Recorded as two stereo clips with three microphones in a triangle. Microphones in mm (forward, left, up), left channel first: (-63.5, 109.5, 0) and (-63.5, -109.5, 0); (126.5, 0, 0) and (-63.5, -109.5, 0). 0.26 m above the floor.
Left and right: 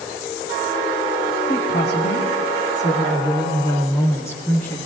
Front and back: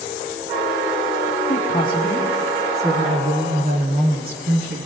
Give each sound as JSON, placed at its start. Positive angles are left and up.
{"t": 1.5, "sound": "a woman speaking", "azimuth_deg": 65, "distance_m": 2.0}